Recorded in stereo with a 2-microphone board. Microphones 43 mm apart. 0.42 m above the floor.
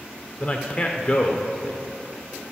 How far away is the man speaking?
About 0.8 m.